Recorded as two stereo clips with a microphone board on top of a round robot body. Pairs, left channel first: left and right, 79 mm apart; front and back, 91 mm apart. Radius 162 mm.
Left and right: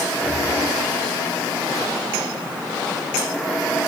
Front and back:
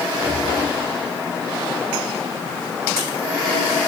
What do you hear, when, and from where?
0.1 s breathing: 165° right, 2.5 m